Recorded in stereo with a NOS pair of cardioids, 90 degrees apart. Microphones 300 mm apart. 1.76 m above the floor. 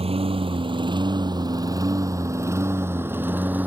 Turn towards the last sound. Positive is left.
turn(degrees=-5)